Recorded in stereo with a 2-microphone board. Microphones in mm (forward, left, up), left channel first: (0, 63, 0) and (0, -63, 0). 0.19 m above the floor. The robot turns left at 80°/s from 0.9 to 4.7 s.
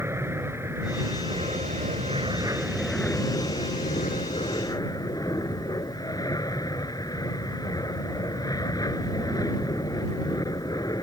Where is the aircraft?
20° right; by 11.0 s 35° left.